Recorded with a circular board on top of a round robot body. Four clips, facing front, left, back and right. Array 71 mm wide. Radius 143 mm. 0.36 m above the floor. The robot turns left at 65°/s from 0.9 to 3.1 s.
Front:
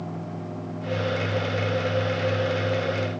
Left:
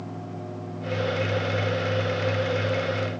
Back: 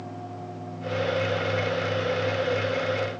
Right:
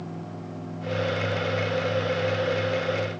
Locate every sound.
Only background noise.